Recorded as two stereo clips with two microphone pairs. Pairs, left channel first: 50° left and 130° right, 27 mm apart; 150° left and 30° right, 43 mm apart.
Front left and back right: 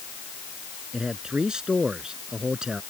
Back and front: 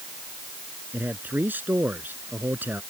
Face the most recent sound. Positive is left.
turn(degrees=-75)